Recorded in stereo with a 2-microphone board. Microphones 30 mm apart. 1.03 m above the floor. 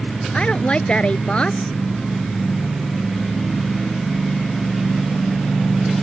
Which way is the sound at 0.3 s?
35° left (ahead or behind).